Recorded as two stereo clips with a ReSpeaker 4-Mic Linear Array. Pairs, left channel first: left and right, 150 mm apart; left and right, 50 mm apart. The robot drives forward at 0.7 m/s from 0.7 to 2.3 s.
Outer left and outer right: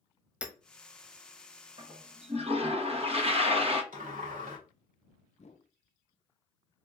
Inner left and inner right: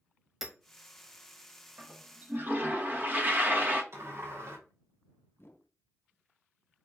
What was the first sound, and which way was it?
Hammering, 5° right (ahead or behind).